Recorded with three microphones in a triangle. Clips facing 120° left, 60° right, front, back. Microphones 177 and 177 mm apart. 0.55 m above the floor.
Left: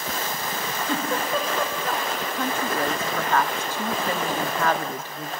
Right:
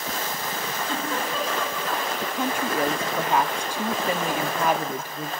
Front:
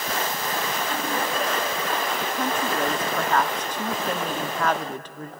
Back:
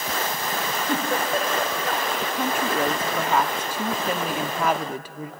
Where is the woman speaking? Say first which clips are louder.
Even, back 1 dB; 115° right, 0.6 m.